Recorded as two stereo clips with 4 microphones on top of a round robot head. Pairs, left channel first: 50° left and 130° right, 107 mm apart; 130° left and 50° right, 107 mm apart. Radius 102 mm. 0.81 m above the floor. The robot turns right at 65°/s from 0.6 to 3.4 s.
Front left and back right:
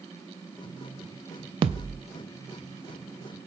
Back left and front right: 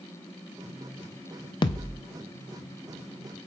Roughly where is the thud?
Behind.